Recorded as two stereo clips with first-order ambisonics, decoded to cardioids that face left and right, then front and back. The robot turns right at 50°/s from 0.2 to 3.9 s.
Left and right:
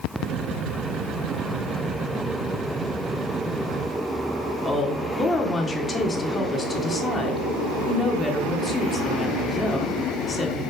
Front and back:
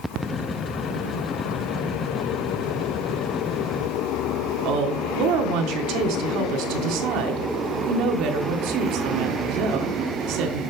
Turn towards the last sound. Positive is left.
turn(degrees=165)